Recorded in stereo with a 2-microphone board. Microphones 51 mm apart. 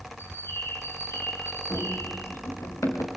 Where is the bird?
55° left (ahead or behind), 4.5 m.